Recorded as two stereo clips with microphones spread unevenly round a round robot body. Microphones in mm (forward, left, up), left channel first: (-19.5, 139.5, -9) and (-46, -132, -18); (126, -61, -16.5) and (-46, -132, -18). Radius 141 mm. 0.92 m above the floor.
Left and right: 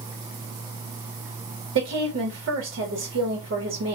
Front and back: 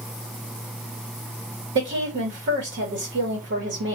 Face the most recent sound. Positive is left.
turn(degrees=-140)